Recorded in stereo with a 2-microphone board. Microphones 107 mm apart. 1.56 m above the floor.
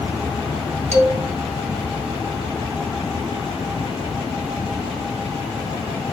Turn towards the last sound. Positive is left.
turn(degrees=-85)